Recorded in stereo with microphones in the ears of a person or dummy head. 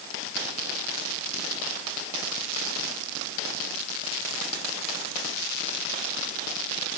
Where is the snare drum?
No snare drum in this recording.